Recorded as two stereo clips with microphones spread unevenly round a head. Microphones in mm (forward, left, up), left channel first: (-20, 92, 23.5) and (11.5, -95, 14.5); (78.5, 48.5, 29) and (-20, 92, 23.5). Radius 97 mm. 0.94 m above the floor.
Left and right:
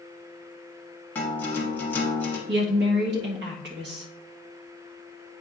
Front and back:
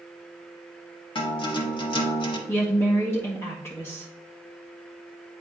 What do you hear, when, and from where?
1.1 s a guitar: 20° left, 1.4 m
2.5 s a woman speaking: 95° right, 1.5 m